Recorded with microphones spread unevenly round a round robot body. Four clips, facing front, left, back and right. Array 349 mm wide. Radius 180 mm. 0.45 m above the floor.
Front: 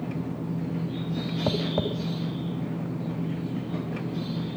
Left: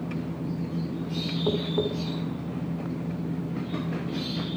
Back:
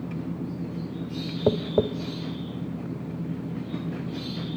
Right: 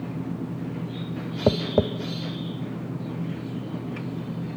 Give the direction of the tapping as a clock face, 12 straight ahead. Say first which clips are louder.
Right 5 dB, back 6 dB; 4 o'clock.